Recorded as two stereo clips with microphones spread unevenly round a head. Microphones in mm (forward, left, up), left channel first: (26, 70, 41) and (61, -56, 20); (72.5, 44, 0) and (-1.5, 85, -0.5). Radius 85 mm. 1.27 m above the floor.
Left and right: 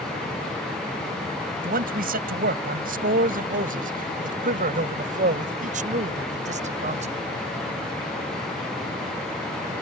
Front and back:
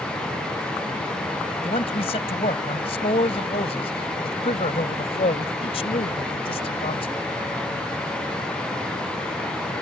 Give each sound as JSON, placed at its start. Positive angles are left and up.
{"t": 1.6, "sound": "a man speaking", "azimuth_deg": -70}